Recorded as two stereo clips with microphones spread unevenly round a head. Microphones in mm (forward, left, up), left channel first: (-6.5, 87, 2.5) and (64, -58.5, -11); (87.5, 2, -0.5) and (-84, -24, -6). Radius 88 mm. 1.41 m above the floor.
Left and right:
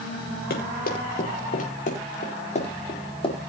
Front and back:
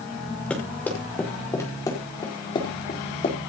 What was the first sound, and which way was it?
Running footsteps, 90° left.